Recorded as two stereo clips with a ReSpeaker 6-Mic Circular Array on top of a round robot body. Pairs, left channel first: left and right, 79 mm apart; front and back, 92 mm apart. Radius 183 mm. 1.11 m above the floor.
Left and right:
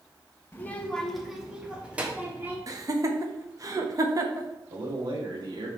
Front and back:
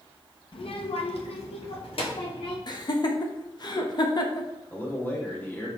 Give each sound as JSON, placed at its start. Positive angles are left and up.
{"t": 0.5, "sound": "a child speaking", "azimuth_deg": 25, "distance_m": 1.5}
{"t": 2.7, "sound": "laughter", "azimuth_deg": -45, "distance_m": 1.6}
{"t": 4.7, "sound": "a man speaking", "azimuth_deg": -70, "distance_m": 3.0}